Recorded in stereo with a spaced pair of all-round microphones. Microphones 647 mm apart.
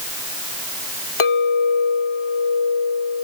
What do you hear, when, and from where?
1.2 s a clink: 50° left (ahead or behind)